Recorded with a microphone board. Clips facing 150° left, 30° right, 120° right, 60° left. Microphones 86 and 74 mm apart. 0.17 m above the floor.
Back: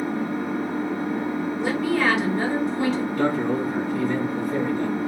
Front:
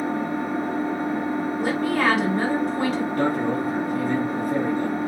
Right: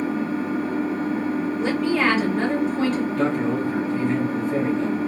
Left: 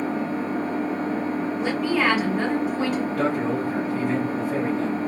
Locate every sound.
0.0 s an engine running: 15° left, 2.5 m
1.6 s a woman speaking: 20° right, 2.5 m
3.1 s a man speaking: 25° right, 2 m